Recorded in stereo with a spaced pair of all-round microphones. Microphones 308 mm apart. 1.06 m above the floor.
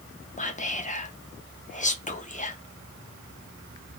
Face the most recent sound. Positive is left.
turn(degrees=25)  # may be behind; listen again after turning